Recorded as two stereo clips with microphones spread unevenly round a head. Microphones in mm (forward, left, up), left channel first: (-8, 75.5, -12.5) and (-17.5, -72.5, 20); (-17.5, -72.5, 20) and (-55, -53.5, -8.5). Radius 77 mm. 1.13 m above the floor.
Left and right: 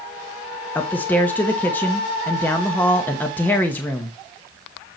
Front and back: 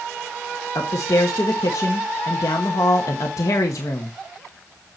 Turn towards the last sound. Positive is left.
turn(degrees=10)